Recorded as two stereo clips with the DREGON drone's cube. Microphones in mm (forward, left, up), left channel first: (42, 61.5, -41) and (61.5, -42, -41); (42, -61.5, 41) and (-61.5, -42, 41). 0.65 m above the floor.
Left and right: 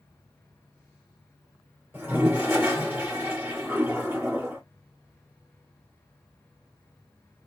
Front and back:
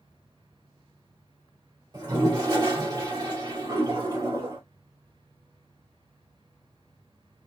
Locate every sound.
1.9 s a toilet flushing: 145° right, 2.5 m